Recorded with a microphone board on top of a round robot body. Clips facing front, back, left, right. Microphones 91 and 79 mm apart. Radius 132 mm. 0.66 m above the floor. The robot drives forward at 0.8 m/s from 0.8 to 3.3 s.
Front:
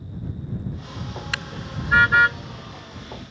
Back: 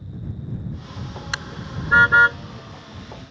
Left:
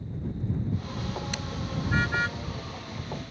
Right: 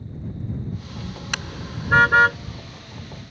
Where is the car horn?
110° right; by 2.4 s 120° right.